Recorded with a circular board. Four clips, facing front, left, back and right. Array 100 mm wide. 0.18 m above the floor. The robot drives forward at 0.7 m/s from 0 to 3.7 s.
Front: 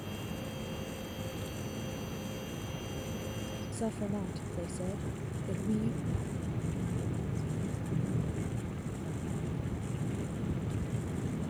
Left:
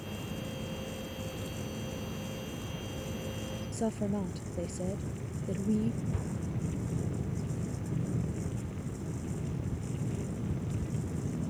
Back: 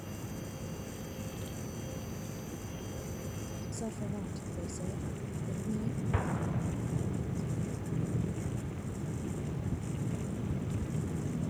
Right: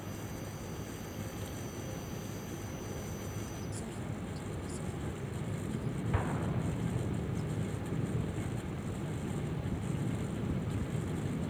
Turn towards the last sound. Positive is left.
turn(degrees=-140)